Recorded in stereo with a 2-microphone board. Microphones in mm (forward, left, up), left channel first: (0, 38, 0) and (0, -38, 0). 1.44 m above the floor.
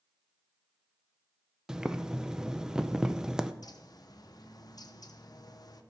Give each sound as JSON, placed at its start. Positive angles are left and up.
{"t": 1.7, "sound": "boiling", "side_deg": -10, "distance_m": 0.6}
{"t": 3.6, "sound": "a bird", "side_deg": 60, "distance_m": 0.8}